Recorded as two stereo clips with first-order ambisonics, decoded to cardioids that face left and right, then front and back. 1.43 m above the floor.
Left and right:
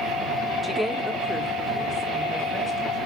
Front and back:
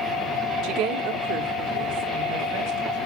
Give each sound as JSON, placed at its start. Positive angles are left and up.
{"t": 0.6, "sound": "a woman speaking", "azimuth_deg": 175, "distance_m": 0.9}